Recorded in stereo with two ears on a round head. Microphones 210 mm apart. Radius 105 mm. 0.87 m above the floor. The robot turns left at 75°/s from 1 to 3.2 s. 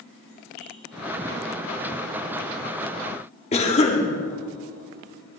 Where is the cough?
30° left (ahead or behind), 2.0 m.